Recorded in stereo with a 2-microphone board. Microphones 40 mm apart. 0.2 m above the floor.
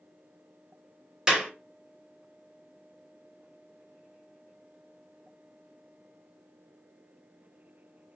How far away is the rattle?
I don't hear a rattle.